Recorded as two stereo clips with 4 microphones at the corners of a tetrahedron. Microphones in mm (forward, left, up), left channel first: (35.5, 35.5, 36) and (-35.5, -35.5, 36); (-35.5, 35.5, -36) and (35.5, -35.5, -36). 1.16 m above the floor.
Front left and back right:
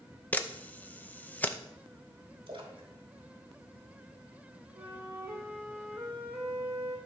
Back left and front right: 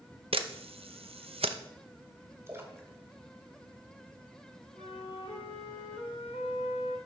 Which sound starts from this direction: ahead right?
A camera shutter, at 0.3 s.